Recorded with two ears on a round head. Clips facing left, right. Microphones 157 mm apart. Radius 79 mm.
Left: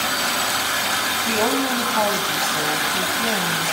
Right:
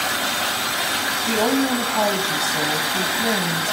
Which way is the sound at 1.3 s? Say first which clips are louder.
Right 2 dB; 10° right (ahead or behind).